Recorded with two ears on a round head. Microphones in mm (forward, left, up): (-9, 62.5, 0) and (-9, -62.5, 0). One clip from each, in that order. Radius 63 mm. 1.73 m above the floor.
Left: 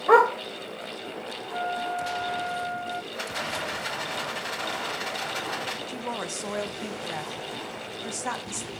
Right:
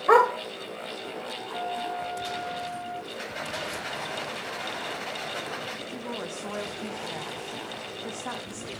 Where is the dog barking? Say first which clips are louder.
Left 1 dB; 25° right (ahead or behind), 3 m.